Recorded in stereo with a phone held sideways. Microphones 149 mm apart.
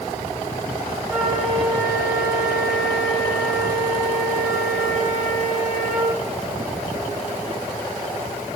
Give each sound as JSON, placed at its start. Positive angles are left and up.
{"t": 1.1, "sound": "a flute", "side_deg": 0, "distance_m": 6.0}